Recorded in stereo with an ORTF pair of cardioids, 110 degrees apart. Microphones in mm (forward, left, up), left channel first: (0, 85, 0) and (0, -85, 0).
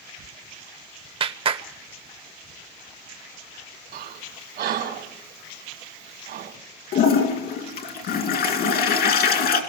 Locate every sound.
1.2 s a clap: 30° right, 1.0 m
3.9 s breathing: 60° right, 1.8 m
6.9 s a toilet flushing: 65° left, 2.5 m